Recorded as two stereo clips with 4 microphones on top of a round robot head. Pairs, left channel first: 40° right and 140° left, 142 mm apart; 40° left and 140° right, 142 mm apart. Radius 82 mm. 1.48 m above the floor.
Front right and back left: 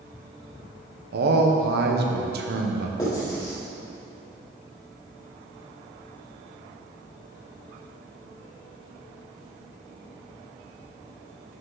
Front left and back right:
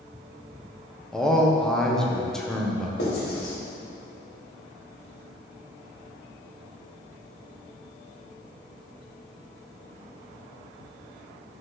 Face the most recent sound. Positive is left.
turn(degrees=25)